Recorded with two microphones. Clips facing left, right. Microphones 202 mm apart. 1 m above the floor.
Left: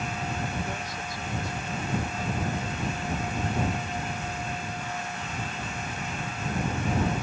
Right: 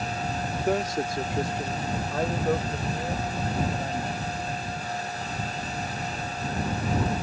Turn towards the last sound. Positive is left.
turn(degrees=-75)  # may be behind; listen again after turning